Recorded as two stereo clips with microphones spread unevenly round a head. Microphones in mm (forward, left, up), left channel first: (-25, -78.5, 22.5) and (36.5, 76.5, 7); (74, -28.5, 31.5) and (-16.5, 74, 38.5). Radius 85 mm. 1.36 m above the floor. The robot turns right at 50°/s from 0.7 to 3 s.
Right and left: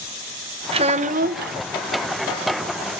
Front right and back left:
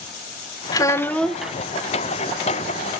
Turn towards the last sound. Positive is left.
turn(degrees=125)